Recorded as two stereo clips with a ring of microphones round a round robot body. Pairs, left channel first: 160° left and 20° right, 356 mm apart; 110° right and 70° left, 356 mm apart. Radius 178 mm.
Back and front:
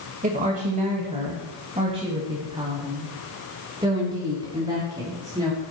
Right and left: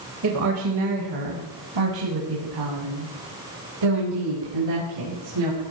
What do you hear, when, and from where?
0.2 s a woman speaking: 40° left, 1.8 m; by 5.6 s 55° left, 5 m